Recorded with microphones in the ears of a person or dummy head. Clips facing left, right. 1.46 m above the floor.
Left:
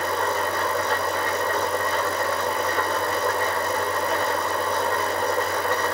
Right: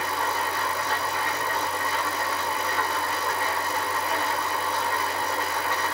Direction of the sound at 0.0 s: 55° left (ahead or behind).